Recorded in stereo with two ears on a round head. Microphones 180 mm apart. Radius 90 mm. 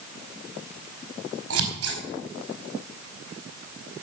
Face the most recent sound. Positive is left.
turn(degrees=-80)